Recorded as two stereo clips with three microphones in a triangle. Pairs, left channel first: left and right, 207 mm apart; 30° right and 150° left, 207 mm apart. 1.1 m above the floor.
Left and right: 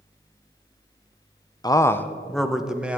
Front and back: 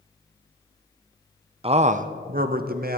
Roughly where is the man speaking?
Behind left.